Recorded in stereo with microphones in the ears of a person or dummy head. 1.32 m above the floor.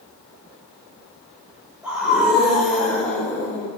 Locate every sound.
1.8 s a scream: centre (ahead or behind), 5 m; by 3.7 s 15° left (ahead or behind), 5.5 m